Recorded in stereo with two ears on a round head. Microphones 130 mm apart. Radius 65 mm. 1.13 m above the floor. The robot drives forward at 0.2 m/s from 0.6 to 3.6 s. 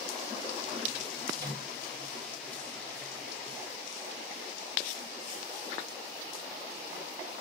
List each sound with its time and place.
1.4 s a microwave: 25° right (ahead or behind), 1.4 m